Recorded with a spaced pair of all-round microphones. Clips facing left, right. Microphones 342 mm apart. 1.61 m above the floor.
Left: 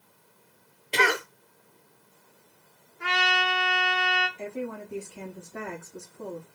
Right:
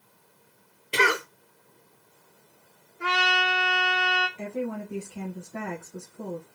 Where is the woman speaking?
70° right (ahead or behind), 1.3 m.